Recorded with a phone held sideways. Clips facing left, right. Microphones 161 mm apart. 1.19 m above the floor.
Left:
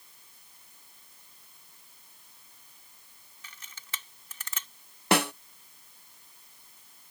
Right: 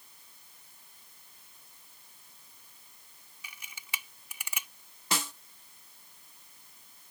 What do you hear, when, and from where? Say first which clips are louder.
3.4 s a camera shutter: right 1 dB; 10° right (ahead or behind)
5.1 s a snare drum: left 11 dB; 65° left (ahead or behind)